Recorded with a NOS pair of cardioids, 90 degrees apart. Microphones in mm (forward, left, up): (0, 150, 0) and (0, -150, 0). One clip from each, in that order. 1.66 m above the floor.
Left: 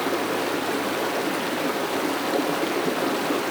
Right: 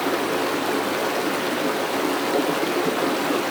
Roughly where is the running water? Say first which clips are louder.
Right 2 dB; ahead.